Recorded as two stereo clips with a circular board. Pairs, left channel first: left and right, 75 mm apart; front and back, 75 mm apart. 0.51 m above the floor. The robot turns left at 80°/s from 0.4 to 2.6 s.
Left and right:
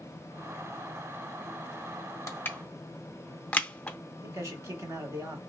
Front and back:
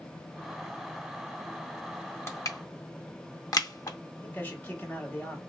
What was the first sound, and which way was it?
Crushing, 45° left.